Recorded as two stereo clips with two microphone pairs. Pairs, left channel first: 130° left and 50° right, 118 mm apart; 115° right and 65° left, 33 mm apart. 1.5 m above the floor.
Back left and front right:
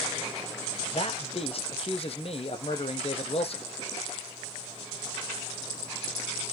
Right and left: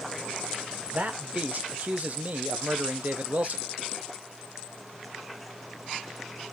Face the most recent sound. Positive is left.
turn(degrees=105)